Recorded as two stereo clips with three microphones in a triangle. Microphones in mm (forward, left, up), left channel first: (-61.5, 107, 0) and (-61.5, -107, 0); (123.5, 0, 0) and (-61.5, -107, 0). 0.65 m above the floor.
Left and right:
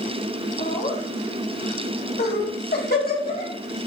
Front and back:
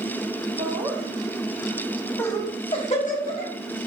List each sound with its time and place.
0.6 s laughter: 150° left, 1.7 m; by 3.5 s 55° left, 1.3 m